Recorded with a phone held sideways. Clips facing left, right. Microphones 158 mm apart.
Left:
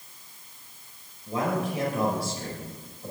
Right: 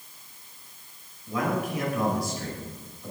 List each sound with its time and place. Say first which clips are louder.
1.3 s a man speaking: even; 30° left (ahead or behind), 5.5 m